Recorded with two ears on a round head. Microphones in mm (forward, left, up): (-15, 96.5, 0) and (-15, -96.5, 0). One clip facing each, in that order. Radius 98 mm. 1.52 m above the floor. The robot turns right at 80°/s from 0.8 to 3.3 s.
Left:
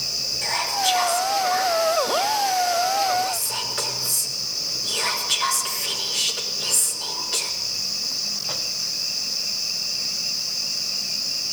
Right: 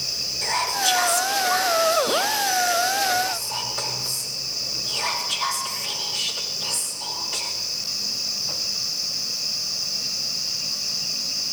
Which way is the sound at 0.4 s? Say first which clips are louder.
Left 1 dB; 5° left (ahead or behind).